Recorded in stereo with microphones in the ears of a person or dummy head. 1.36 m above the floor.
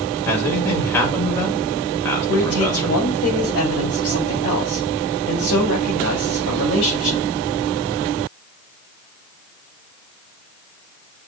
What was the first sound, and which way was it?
A man speaking, 15° left (ahead or behind).